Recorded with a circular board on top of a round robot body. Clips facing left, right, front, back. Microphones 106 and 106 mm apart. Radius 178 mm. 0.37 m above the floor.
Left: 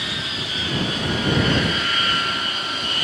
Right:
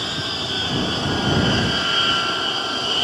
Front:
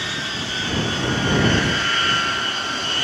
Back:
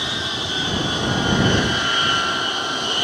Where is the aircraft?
120° right.